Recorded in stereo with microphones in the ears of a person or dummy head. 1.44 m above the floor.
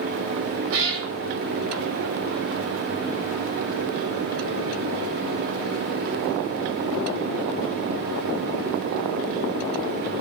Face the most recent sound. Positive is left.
turn(degrees=-70)  # may be behind; listen again after turning